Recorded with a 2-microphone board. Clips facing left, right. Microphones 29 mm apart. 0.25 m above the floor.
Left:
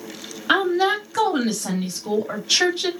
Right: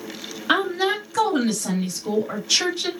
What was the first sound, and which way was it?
A woman speaking, 15° left (ahead or behind).